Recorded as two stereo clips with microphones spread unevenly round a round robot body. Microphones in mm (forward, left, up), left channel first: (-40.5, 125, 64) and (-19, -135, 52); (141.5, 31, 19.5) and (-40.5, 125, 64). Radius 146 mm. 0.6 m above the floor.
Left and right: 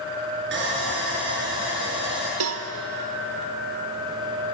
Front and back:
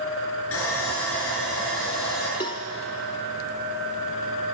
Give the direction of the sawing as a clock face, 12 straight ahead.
1 o'clock.